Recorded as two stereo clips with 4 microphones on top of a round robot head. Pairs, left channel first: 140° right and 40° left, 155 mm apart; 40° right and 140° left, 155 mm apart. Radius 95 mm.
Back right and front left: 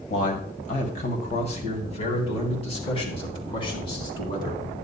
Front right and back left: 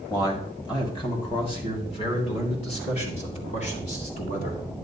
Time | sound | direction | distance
0.1 | a man speaking | 105° right | 2.5 m